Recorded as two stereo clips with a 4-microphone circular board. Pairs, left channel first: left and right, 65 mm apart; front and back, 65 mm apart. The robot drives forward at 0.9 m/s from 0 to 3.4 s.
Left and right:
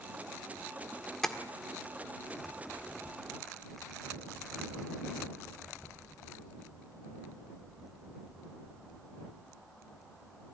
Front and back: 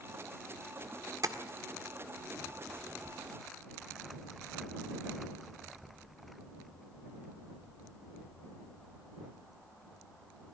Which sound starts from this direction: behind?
Tapping, at 1.2 s.